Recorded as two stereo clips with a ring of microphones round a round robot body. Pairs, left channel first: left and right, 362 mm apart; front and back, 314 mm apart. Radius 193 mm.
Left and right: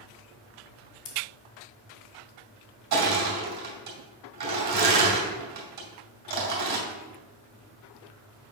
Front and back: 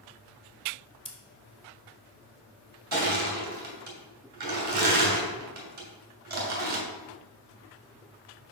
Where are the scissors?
70° left, 1.3 m.